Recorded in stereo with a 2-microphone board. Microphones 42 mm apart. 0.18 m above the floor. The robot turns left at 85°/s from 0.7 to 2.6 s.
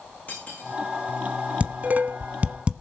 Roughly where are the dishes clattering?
Right.